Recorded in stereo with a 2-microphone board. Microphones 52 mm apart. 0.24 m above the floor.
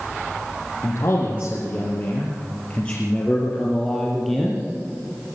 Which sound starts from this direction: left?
A man speaking, at 0.8 s.